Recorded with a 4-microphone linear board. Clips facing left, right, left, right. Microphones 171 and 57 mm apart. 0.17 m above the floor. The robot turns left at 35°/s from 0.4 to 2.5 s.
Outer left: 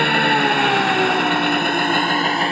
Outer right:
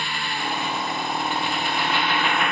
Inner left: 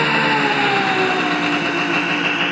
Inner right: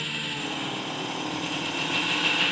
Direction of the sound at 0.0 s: 105° left.